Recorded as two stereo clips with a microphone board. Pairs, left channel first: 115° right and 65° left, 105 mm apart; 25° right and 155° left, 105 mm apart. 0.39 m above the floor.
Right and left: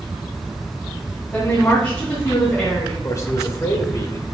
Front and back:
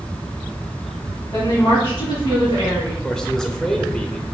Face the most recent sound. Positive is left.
turn(degrees=-100)